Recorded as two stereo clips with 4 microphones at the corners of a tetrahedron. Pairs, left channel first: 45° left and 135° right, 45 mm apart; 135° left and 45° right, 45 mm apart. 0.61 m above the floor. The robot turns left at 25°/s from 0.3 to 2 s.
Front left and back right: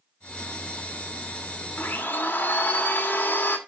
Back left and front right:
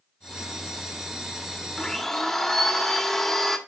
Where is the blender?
60° left, 1.6 m; by 3.6 s 55° left, 1.6 m.